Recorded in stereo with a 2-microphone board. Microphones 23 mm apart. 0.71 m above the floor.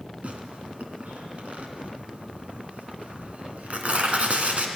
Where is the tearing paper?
65° right (ahead or behind), 2.5 m.